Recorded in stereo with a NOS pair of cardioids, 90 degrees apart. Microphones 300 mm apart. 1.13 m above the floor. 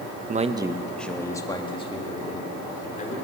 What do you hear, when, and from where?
0.3 s a man speaking: 30° right, 0.9 m; by 3.1 s 25° left, 3.5 m